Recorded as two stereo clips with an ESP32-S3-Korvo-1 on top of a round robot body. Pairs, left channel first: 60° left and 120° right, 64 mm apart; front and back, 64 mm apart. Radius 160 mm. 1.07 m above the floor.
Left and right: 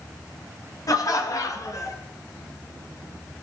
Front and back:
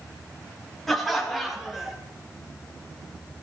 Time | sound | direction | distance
0.9 | laughter | 85° left | 2.5 m